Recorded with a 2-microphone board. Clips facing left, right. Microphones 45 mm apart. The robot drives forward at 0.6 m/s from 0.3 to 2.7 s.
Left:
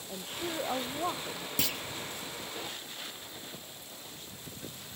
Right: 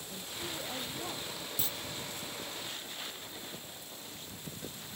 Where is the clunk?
75° left (ahead or behind).